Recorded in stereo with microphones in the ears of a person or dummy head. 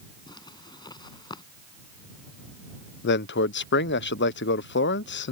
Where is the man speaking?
75° left (ahead or behind).